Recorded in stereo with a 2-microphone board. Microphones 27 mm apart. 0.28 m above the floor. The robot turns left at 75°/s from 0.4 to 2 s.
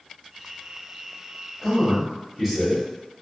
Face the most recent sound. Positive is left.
turn(degrees=-5)  # may be behind; listen again after turning